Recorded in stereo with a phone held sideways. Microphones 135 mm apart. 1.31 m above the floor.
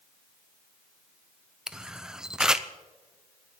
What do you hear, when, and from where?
1.7 s a camera shutter: 5° right (ahead or behind), 0.5 m